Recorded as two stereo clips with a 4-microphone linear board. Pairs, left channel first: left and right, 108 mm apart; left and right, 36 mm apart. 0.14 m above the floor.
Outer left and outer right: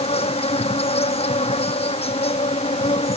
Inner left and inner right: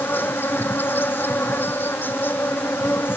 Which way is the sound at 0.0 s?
75° left (ahead or behind).